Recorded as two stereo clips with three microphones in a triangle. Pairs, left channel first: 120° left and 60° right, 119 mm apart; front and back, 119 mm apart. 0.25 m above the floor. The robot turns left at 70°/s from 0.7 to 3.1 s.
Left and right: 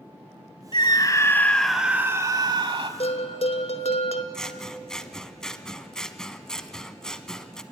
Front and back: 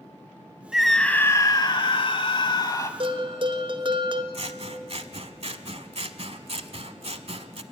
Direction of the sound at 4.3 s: 155° right.